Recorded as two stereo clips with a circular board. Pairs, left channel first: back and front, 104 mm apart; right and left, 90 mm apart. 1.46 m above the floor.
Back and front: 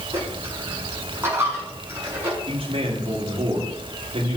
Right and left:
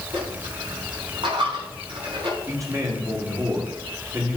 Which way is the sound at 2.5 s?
35° left.